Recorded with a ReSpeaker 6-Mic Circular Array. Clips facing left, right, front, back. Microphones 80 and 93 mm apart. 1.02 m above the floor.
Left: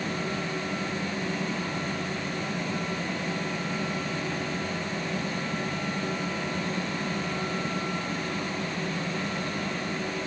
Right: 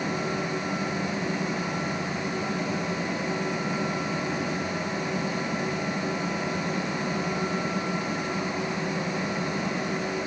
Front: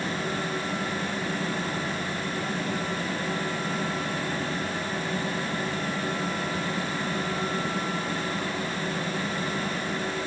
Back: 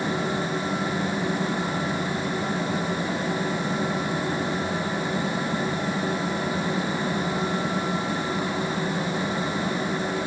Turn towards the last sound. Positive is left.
No sound to turn to.